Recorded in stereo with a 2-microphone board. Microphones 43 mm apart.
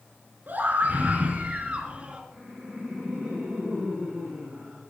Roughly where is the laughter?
Right.